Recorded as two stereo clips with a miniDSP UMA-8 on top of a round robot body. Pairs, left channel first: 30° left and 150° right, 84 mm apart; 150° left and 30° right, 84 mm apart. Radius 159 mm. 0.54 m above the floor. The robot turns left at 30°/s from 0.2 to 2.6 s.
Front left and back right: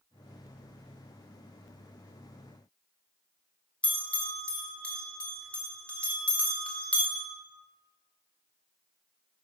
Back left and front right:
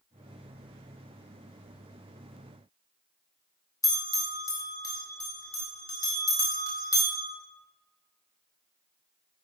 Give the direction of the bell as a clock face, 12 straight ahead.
8 o'clock.